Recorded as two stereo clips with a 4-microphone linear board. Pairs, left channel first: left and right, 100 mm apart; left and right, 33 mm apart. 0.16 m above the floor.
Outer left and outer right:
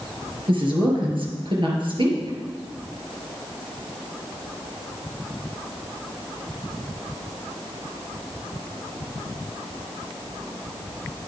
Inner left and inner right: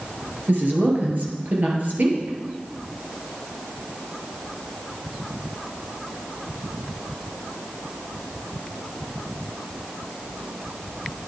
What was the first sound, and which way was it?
A woman speaking, 55° right (ahead or behind).